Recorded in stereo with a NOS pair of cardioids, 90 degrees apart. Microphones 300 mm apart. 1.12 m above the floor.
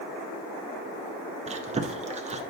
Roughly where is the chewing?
Ahead.